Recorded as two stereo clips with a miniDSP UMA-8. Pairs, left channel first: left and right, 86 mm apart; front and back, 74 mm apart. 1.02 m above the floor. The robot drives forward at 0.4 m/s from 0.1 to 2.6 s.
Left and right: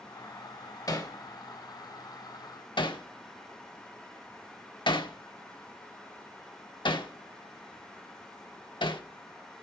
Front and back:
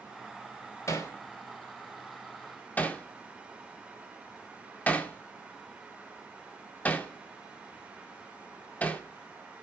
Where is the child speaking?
I don't hear a child speaking.